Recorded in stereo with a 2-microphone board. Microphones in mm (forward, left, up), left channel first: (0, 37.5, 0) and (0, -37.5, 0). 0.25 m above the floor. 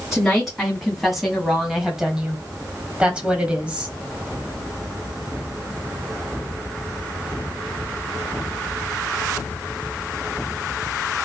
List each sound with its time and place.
0.1 s a woman speaking: centre (ahead or behind), 2 m; by 4.0 s 15° right (ahead or behind), 1.4 m